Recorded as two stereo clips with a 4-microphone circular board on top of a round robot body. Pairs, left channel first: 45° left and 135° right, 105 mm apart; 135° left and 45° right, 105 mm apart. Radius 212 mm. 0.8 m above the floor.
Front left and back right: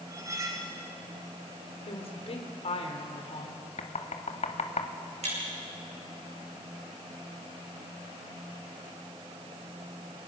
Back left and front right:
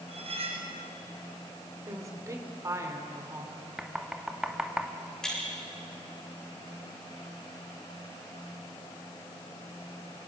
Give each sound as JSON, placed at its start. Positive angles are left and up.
{"t": 0.1, "sound": "cutlery clinking", "azimuth_deg": -70, "distance_m": 3.5}
{"t": 1.9, "sound": "a woman speaking", "azimuth_deg": 20, "distance_m": 3.0}
{"t": 3.8, "sound": "knocking", "azimuth_deg": 40, "distance_m": 1.6}
{"t": 5.2, "sound": "breaking glass", "azimuth_deg": -140, "distance_m": 9.5}